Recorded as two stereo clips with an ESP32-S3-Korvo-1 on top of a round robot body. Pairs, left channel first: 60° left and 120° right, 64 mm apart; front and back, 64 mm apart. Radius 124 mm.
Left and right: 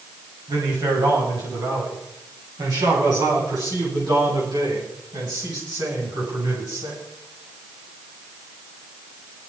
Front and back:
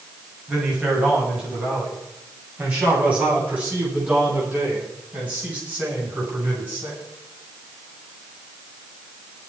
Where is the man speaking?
105° right, 9 m; by 7.0 s 115° right, 13 m.